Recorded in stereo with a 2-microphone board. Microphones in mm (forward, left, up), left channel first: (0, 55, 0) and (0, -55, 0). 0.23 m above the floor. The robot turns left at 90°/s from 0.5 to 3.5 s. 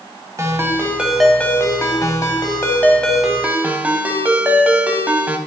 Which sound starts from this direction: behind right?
A ringtone, at 0.4 s.